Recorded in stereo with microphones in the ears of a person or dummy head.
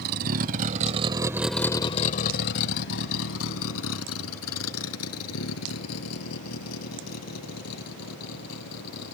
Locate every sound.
0.0 s a vehicle: 55° right (ahead or behind); by 9.2 s 85° left